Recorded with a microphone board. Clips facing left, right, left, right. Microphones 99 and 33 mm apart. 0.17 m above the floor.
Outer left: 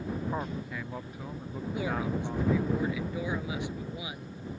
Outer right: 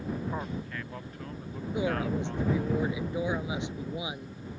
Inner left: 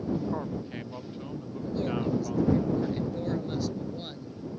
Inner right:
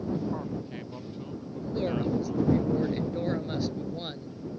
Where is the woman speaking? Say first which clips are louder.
Outer right 3 dB, inner right 1 dB; 20° right (ahead or behind).